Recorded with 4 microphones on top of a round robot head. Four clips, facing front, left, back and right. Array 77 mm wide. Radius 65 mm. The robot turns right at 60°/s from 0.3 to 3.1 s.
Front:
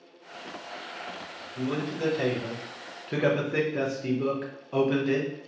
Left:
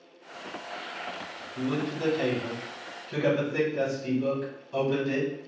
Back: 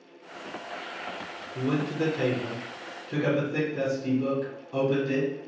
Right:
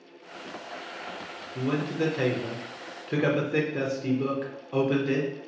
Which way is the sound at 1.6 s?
135° right.